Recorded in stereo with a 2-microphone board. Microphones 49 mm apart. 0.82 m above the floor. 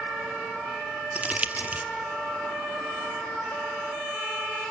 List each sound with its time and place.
1.1 s crumpling: 30° right (ahead or behind), 0.7 m